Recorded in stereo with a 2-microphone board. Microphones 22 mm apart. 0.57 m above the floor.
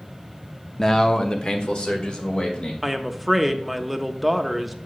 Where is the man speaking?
15° left (ahead or behind), 0.6 m; by 2.7 s 60° left (ahead or behind), 2.5 m.